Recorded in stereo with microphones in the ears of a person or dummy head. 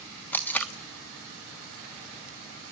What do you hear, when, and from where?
0.3 s tape being pulled: 5° left (ahead or behind), 1.3 m